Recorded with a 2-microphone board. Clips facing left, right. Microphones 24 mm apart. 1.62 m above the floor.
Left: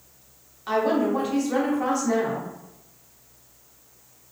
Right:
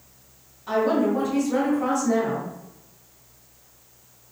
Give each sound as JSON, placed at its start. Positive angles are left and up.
{"t": 0.7, "sound": "a woman speaking", "side_deg": 45, "distance_m": 0.8}